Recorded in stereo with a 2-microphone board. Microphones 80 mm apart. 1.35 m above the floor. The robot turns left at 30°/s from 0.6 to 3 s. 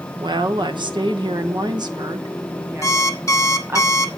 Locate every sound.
0.2 s a woman speaking: 75° right, 0.9 m; by 3.8 s 150° right, 0.9 m
2.8 s an alarm clock: 40° left (ahead or behind), 1.1 m; by 4.1 s 45° left (ahead or behind), 1.1 m